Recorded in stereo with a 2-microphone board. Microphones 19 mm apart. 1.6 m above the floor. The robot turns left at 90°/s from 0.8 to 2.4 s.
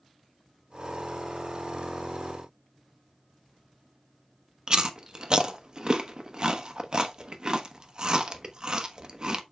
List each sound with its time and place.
4.7 s chewing: 40° right (ahead or behind), 1.0 m